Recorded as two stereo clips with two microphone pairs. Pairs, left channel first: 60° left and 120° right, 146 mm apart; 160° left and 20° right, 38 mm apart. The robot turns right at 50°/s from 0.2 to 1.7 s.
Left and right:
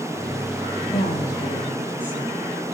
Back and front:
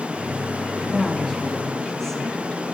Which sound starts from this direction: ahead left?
A woman speaking, at 0.9 s.